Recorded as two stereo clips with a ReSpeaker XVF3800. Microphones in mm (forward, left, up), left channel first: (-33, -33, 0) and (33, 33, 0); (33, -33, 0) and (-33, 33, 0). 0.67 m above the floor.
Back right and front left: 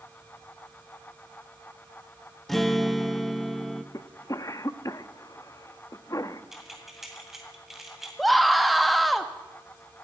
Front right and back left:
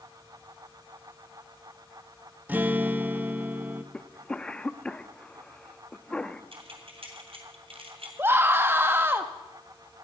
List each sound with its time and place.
2.5 s a guitar: 140° left, 0.7 m
3.9 s a cough: 120° right, 0.6 m
6.5 s keys jangling: 130° left, 2.5 m
8.2 s a scream: 135° left, 0.6 m